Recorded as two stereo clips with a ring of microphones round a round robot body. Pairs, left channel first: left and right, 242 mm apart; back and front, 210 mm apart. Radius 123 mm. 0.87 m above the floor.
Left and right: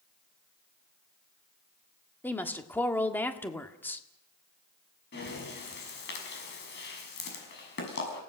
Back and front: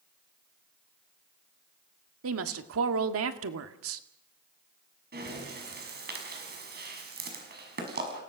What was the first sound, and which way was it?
A woman speaking, 10° left.